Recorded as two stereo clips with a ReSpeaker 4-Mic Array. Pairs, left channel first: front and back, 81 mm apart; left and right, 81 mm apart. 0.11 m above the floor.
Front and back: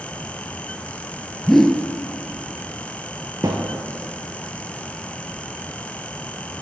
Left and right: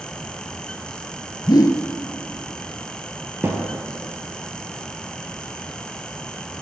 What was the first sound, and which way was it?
A whoosh, 85° left.